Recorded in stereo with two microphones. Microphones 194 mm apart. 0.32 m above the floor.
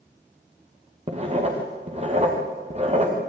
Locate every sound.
1.1 s writing: 35° right (ahead or behind), 5.5 m